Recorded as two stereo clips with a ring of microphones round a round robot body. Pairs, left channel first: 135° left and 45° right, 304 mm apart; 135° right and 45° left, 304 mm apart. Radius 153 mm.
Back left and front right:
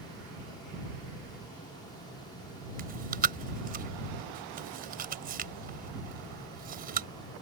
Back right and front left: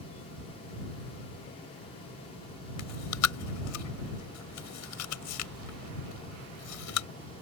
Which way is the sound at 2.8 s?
105° right.